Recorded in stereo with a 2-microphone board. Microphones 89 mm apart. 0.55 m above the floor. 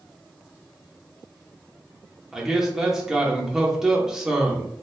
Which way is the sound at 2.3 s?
5° right (ahead or behind).